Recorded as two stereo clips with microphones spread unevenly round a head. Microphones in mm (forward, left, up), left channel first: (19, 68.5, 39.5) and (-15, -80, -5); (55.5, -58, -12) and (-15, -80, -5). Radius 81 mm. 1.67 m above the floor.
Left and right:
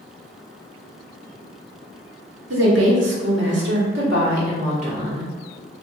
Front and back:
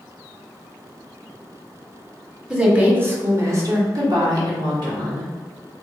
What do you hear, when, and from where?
2.5 s a woman speaking: 90° right, 1.3 m; by 5.3 s 160° right, 1.6 m